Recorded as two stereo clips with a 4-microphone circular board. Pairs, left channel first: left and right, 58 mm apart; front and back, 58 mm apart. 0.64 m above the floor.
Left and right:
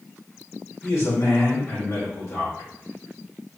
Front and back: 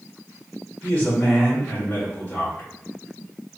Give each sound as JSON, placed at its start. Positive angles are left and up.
{"t": 0.8, "sound": "a man speaking", "azimuth_deg": 70, "distance_m": 2.0}